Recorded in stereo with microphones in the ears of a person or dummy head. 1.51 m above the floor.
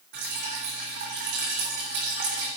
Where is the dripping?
45° right (ahead or behind), 4 m.